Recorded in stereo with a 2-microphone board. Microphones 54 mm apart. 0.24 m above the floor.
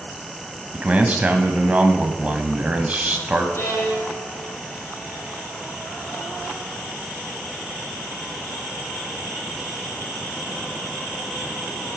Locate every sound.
0.7 s a man speaking: 25° right (ahead or behind), 1.2 m
3.5 s a violin: 45° left (ahead or behind), 5.5 m